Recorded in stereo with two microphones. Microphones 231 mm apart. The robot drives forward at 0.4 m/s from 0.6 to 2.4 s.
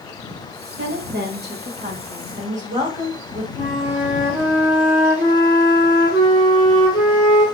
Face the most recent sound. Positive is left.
turn(degrees=5)  # may be behind; listen again after turning